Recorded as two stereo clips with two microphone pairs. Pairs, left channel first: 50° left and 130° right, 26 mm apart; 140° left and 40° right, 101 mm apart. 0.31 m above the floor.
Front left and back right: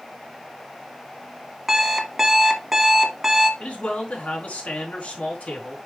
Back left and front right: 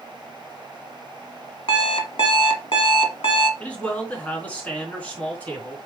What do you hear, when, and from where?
1.7 s an alarm clock: 155° left, 1.4 m
3.6 s a man speaking: 65° left, 4 m